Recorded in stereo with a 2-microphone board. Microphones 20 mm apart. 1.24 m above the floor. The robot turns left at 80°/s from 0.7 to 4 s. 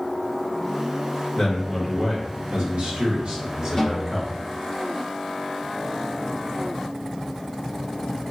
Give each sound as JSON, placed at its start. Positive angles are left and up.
{"t": 1.4, "sound": "a man speaking", "azimuth_deg": 35, "distance_m": 1.5}
{"t": 3.8, "sound": "a snare drum", "side_deg": 20, "distance_m": 1.1}